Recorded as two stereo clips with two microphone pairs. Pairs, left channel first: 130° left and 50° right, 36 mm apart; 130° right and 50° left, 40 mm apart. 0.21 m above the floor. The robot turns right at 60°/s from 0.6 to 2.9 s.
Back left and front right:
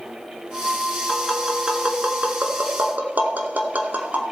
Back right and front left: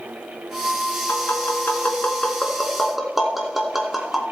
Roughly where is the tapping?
Behind right.